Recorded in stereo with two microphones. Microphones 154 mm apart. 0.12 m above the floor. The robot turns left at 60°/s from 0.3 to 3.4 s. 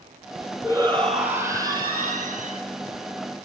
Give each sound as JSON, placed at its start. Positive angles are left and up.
{"t": 0.6, "sound": "a shout", "azimuth_deg": 30, "distance_m": 3.0}